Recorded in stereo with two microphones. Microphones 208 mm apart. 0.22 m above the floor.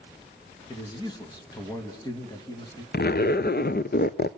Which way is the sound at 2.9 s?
50° left (ahead or behind).